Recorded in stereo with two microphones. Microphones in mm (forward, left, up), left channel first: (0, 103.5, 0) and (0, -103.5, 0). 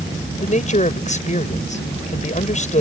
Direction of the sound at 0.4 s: 35° left (ahead or behind).